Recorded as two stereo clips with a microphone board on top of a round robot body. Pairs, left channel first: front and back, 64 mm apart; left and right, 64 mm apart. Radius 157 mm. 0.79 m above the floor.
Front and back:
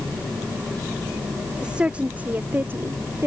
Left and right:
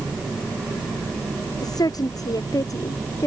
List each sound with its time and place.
1.6 s a woman speaking: 105° left; by 3.3 s 130° left